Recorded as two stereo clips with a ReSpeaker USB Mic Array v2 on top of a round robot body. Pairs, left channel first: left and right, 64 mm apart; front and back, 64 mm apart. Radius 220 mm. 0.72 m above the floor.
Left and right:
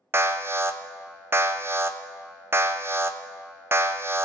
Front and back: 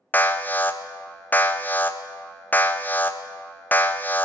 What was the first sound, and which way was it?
An alarm, 55° right.